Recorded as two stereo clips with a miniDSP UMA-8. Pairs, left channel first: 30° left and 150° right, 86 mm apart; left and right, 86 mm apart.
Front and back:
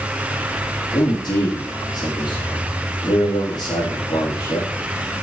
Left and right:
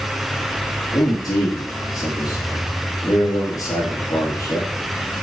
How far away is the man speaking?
About 4 m.